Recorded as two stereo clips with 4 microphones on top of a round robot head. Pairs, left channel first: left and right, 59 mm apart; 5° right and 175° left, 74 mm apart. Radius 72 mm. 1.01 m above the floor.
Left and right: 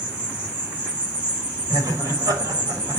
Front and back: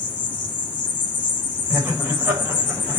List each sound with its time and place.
0.0 s an insect: 20° right, 1.8 m
1.7 s laughter: 110° right, 4.5 m